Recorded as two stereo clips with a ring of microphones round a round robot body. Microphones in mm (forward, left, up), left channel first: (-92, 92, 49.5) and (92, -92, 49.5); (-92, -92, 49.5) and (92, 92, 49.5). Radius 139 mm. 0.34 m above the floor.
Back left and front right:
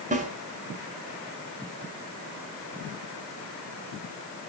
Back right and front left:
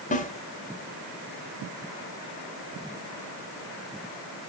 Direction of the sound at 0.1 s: 90° right.